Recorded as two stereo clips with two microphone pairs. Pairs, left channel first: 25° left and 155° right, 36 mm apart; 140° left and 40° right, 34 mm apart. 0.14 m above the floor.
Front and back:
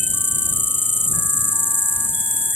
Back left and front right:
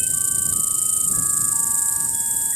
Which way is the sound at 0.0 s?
40° left.